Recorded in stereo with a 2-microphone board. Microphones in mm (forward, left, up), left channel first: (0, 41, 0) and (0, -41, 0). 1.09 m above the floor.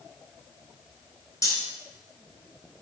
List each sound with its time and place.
1.4 s cutlery clinking: 40° left (ahead or behind), 3.5 m